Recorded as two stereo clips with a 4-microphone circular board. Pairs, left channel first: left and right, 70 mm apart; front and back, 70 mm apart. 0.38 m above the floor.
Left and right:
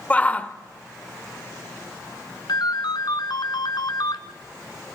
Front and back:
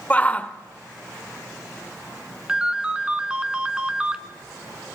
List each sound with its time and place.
0.1 s a shout: 50° left, 0.9 m
2.5 s a ringtone: 105° left, 1.7 m